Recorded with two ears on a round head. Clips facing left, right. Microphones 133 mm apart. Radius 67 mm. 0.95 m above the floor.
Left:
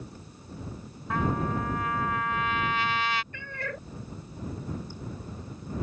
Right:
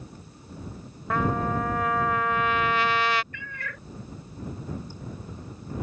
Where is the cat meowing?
30° left (ahead or behind).